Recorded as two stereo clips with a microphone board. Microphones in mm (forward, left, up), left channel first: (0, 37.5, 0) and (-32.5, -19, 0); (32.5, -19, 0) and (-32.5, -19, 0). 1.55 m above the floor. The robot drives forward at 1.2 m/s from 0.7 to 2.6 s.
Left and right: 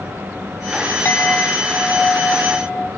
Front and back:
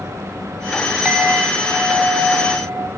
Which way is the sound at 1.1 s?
110° left.